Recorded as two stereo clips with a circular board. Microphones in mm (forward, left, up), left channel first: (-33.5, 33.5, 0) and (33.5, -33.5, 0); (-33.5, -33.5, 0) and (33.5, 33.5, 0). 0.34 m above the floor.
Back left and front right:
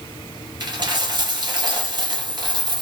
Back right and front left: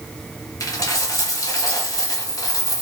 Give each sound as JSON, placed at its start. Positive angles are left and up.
{"t": 0.6, "sound": "a dropped coin", "azimuth_deg": -85, "distance_m": 1.5}